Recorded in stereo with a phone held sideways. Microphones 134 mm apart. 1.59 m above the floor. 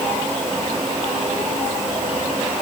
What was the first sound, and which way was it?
Only background noise.